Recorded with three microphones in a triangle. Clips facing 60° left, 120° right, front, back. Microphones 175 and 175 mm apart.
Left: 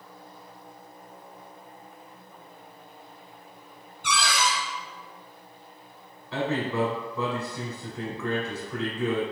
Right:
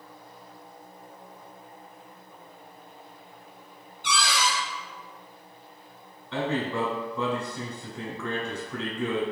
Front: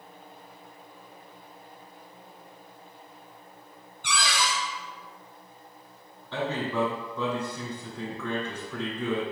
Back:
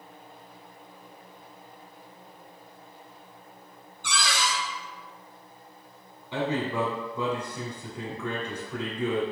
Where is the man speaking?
140° left, 1.1 m.